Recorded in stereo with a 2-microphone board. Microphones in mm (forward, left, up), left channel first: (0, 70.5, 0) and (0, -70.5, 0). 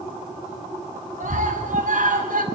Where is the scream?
70° right (ahead or behind), 5.5 m; by 2.4 s 75° right (ahead or behind), 4 m.